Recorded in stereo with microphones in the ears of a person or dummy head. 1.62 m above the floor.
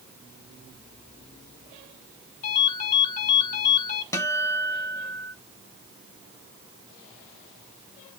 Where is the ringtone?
60° left (ahead or behind), 5.5 m.